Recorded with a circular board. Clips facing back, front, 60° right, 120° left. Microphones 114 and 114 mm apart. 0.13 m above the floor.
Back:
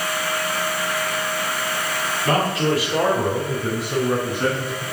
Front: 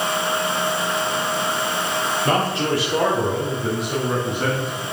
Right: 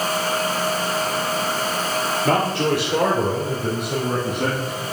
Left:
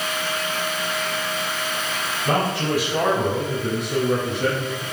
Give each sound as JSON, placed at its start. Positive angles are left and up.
{"t": 2.2, "sound": "a man speaking", "azimuth_deg": -50, "distance_m": 3.5}